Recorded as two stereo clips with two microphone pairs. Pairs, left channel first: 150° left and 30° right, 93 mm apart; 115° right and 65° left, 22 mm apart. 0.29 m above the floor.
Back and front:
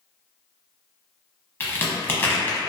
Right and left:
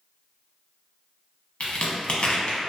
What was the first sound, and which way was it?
A crack, 140° right.